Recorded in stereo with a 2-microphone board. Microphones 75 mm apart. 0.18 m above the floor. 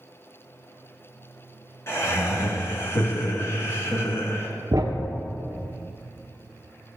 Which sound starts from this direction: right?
A thud, at 4.7 s.